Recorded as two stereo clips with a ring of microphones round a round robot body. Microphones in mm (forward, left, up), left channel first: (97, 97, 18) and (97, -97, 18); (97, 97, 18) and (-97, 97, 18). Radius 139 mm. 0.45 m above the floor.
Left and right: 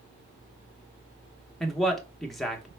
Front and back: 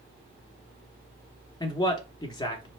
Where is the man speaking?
Straight ahead, 0.9 m.